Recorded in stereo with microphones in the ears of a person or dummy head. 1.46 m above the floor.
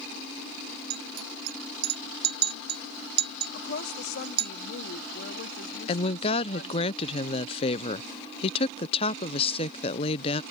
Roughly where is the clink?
Right.